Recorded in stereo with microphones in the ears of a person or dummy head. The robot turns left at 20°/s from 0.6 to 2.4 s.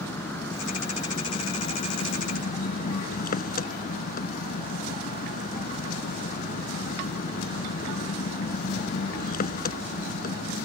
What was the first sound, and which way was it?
An engine running, 165° left.